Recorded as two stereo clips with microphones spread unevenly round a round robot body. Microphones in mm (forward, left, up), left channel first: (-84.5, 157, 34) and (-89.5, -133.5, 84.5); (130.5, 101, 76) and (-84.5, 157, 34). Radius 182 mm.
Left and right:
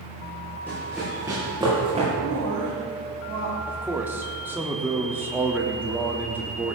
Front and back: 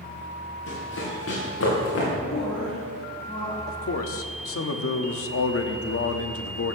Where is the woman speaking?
80° right, 4.5 m.